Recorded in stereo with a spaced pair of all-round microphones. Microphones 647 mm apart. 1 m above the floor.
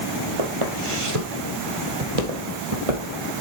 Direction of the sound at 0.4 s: 45° right (ahead or behind).